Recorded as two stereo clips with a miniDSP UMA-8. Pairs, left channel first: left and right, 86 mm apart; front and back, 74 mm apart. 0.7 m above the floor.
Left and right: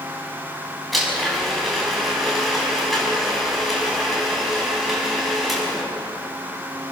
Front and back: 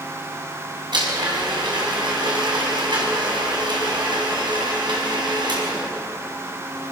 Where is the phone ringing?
I don't hear a phone ringing.